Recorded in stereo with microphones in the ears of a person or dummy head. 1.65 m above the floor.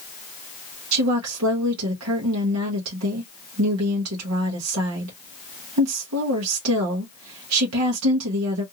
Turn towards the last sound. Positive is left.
turn(degrees=-90)